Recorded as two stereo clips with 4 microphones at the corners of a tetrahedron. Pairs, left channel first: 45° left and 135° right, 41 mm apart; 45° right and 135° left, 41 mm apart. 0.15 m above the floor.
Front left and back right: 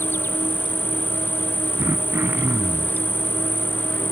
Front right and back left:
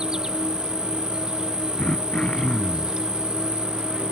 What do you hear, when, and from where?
0.0 s an insect: 65° left
1.8 s throat clearing: 115° right